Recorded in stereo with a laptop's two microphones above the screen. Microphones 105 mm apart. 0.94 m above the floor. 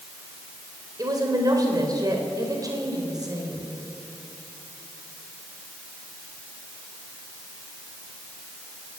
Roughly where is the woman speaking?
Right.